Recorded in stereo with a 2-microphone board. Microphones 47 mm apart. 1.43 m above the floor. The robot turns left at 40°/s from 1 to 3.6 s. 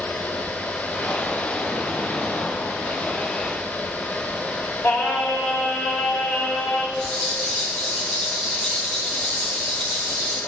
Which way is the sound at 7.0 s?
15° left (ahead or behind).